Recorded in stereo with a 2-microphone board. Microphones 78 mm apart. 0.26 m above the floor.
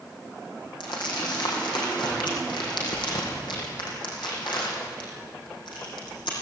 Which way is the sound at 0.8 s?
80° left.